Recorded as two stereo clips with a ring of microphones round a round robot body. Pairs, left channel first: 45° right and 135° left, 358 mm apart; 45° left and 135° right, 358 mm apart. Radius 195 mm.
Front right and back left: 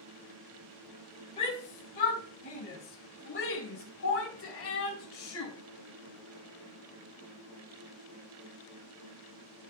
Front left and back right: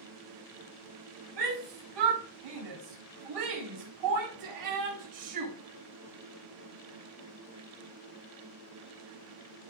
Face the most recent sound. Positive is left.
turn(degrees=-95)